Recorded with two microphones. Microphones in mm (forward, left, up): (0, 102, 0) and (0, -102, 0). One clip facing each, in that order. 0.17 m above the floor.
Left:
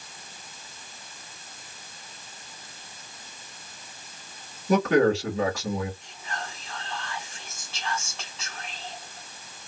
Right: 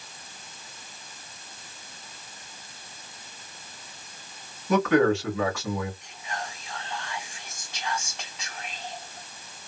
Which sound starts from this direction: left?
A man speaking, at 4.7 s.